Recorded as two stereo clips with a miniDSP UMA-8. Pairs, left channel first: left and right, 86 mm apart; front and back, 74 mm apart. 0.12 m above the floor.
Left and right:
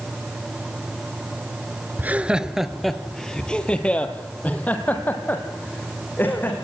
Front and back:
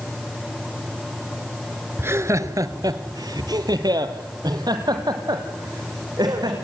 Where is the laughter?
145° right, 1.3 m; by 6.6 s 155° left, 6 m.